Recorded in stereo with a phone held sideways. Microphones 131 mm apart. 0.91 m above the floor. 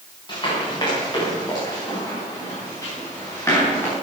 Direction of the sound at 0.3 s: 35° left (ahead or behind).